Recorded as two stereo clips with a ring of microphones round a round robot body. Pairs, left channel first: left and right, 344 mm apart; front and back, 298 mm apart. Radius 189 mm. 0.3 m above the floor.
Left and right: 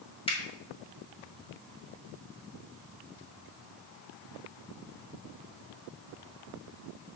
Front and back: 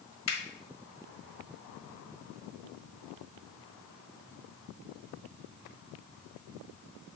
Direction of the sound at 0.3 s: 20° left.